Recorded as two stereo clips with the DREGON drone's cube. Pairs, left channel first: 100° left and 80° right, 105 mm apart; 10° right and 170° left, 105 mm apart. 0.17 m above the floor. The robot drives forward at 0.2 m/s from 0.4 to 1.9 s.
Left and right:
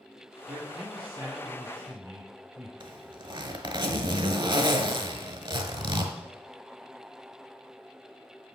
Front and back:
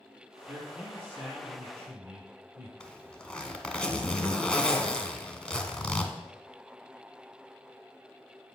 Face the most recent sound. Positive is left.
turn(degrees=-90)